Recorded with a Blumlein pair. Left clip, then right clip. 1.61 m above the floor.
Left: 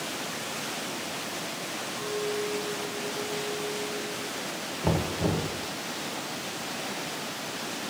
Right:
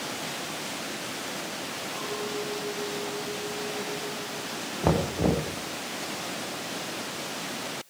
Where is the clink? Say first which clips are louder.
Left 3 dB; 25° right, 3.5 m.